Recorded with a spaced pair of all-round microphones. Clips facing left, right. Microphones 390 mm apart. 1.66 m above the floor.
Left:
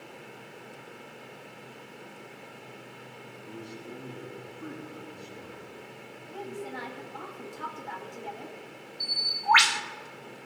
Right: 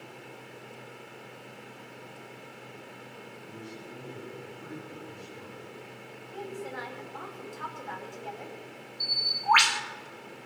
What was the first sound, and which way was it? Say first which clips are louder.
A man speaking: left 3 dB; 85° left.